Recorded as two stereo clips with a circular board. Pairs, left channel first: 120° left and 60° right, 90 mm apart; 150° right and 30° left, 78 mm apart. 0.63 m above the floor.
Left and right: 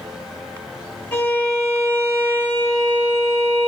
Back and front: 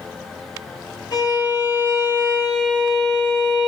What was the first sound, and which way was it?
A violin, 175° right.